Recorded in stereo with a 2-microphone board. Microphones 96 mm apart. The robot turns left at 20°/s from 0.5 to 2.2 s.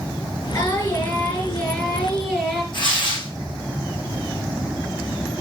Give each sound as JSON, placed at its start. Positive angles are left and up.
{"t": 0.5, "sound": "singing", "azimuth_deg": 40, "distance_m": 4.5}
{"t": 2.7, "sound": "tearing paper", "side_deg": 55, "distance_m": 3.5}